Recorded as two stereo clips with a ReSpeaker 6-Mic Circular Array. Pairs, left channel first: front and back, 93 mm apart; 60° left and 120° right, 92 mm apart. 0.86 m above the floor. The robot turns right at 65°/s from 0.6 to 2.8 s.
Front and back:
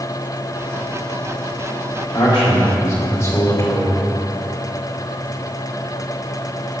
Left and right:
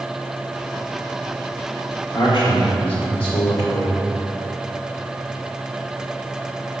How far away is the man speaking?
About 2 m.